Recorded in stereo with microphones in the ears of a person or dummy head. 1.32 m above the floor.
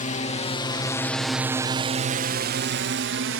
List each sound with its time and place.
0.0 s a drone: 40° left (ahead or behind); by 3.4 s 70° right (ahead or behind)